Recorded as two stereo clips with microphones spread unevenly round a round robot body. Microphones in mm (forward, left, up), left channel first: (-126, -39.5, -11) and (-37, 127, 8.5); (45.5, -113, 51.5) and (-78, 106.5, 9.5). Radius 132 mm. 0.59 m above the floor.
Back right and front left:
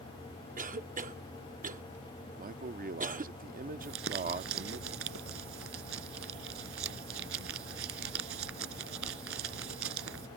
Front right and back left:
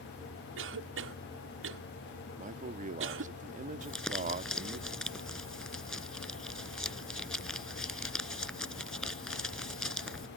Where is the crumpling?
25° left.